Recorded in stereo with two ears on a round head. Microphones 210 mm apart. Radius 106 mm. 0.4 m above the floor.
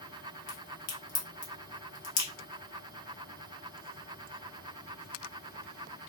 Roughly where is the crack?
Left.